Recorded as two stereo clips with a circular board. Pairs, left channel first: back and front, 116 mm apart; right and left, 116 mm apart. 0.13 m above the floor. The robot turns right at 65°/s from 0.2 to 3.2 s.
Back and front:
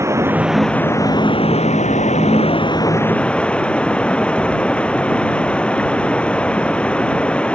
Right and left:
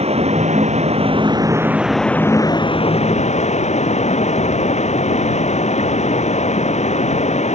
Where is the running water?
65° left; by 7.5 s 100° right.